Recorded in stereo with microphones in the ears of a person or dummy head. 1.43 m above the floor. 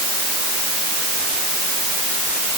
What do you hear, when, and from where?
Only background noise.